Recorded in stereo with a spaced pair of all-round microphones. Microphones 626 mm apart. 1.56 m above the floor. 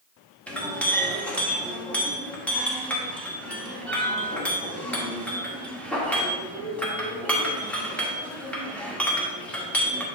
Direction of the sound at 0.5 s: Centre (ahead or behind).